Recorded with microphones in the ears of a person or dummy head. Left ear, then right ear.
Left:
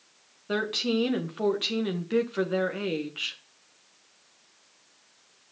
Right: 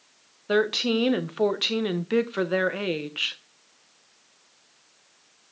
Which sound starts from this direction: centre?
A woman speaking, at 0.5 s.